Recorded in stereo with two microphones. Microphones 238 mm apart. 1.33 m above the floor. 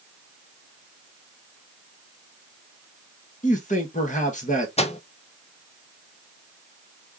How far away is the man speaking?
About 1.4 m.